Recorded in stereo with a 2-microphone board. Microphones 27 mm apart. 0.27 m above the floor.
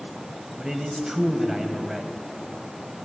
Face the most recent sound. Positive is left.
turn(degrees=-25)  # may be behind; listen again after turning